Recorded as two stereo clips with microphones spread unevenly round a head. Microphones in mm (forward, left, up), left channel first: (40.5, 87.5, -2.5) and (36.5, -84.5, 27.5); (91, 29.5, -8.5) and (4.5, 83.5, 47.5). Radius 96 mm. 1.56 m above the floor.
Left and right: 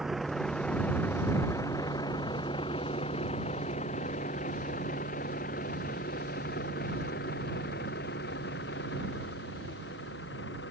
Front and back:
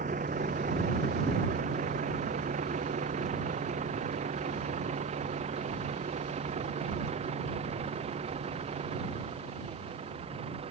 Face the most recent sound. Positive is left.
turn(degrees=125)